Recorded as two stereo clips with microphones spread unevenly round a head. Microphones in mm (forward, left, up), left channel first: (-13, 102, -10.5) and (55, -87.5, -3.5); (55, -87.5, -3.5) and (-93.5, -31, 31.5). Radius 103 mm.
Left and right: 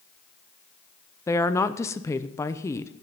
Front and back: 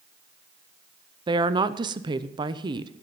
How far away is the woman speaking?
About 0.7 m.